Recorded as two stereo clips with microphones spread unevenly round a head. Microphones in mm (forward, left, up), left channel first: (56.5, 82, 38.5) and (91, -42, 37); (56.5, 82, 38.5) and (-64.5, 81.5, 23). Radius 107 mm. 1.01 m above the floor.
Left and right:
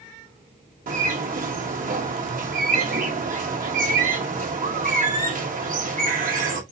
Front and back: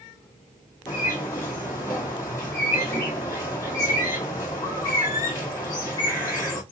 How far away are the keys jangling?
No keys jangling in this recording.